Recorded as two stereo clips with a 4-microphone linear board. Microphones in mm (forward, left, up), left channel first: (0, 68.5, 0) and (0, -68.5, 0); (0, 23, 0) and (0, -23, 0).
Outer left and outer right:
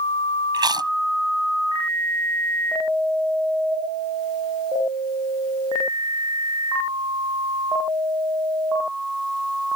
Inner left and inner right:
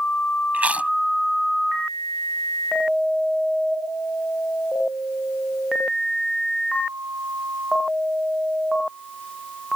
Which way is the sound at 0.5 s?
30° right (ahead or behind).